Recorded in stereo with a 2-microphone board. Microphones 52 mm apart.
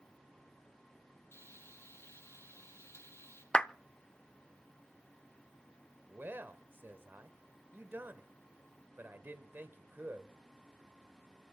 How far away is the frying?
About 5 m.